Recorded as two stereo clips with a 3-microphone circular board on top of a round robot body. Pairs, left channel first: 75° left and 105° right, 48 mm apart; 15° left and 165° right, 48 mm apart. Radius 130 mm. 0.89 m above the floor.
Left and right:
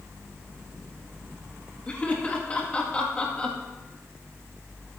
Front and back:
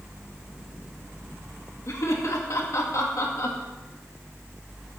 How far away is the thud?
No thud in this recording.